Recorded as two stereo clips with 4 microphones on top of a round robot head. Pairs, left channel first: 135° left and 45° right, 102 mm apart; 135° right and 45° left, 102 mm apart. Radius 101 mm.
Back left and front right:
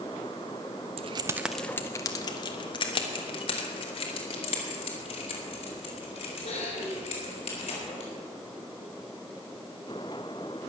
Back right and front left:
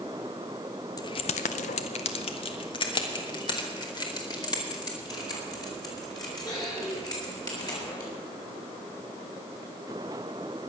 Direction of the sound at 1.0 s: 75° right.